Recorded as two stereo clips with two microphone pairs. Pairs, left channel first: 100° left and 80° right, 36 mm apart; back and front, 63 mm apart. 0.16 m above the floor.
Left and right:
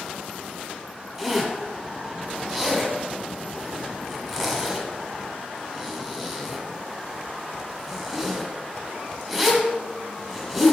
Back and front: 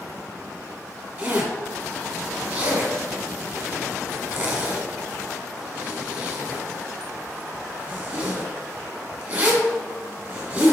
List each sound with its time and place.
1.2 s a zipper: 5° left, 1.1 m